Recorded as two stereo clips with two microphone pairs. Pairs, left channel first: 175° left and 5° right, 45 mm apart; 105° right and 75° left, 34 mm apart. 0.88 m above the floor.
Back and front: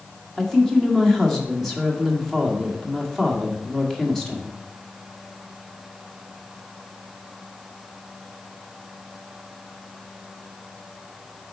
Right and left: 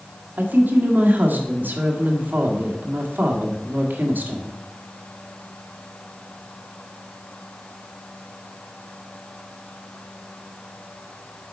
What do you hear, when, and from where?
0.4 s a woman speaking: 95° left, 1.7 m